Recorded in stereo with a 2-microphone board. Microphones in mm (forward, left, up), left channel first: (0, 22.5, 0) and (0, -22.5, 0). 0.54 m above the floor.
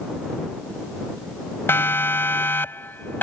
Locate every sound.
1.7 s a siren: 55° left (ahead or behind); by 3.2 s 50° left (ahead or behind)